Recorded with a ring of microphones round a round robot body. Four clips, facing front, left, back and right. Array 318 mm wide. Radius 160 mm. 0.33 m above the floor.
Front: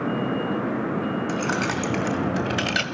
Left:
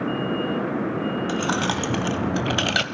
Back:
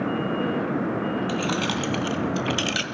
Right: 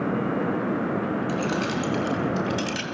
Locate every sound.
1.3 s keys jangling: 80° left, 3 m; by 2.9 s 70° left, 1.5 m